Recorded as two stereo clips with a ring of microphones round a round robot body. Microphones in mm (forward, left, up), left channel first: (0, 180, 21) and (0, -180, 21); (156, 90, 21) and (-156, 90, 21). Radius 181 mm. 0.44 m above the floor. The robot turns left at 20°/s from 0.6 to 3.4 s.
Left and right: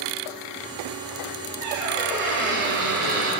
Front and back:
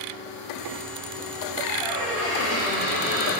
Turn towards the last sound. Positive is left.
turn(degrees=-115)